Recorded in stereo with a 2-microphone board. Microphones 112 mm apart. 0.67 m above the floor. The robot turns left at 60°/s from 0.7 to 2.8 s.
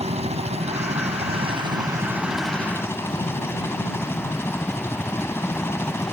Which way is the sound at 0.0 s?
75° right.